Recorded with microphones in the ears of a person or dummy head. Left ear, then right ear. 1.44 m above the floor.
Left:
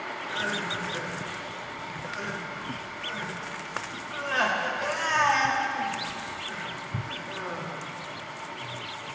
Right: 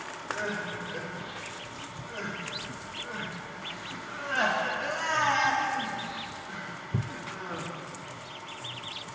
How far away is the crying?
About 1.7 m.